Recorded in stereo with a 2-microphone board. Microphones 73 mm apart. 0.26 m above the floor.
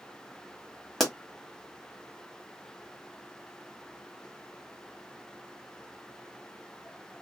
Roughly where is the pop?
Centre.